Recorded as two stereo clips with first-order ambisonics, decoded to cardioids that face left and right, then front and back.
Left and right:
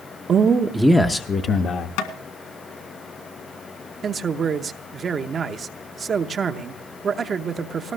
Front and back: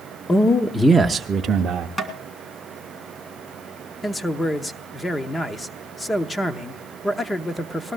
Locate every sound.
0.3 s a man speaking: 60° right, 0.9 m; by 1.9 s 130° left, 1.1 m
2.0 s tapping: 85° left, 1.7 m
4.0 s a man speaking: 65° right, 0.8 m